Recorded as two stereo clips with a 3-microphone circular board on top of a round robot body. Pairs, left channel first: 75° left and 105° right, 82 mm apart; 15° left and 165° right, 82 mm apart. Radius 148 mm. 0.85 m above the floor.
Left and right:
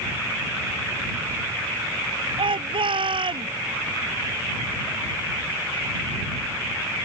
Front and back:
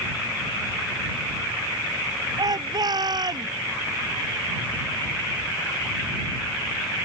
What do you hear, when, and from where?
2.4 s a shout: 125° right